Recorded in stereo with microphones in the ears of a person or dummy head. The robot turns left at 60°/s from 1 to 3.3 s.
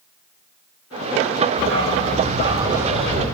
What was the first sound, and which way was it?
A dog barking, 90° right.